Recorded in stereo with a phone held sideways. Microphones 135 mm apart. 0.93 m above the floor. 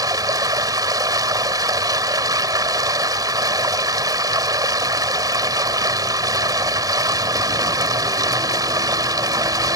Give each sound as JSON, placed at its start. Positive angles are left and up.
{"t": 0.0, "sound": "running water", "side_deg": -30}